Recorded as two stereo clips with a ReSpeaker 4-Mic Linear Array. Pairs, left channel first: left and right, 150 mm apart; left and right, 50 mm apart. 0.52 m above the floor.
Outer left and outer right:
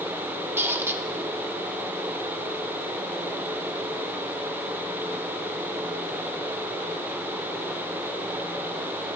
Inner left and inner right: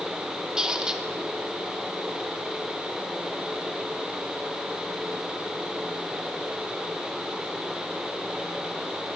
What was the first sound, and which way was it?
A squeak, 15° right (ahead or behind).